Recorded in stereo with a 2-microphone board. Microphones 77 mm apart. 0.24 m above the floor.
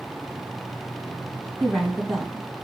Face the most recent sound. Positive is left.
turn(degrees=5)  # may be behind; listen again after turning